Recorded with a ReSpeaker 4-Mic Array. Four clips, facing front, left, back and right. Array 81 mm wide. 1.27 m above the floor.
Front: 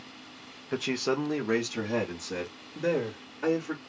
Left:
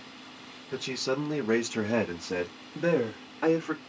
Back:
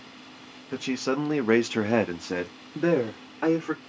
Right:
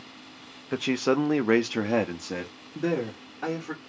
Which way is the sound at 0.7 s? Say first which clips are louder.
Right 6 dB, back 1 dB; 75° right.